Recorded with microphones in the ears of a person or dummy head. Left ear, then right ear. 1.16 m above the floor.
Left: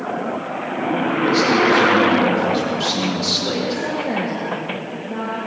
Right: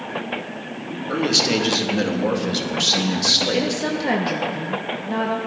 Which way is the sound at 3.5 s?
50° right (ahead or behind).